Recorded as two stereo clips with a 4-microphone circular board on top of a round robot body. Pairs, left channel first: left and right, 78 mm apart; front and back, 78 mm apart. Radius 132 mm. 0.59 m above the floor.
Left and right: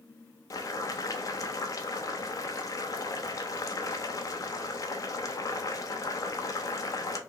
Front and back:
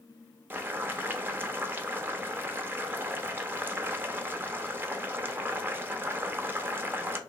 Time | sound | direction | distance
0.5 | boiling | 120° left | 0.7 m